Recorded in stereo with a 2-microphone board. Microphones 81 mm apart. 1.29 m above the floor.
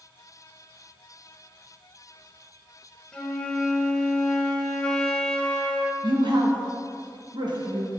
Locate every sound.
3.1 s a flute: 10° left (ahead or behind), 1.1 m
6.0 s a woman speaking: 65° right (ahead or behind), 1.7 m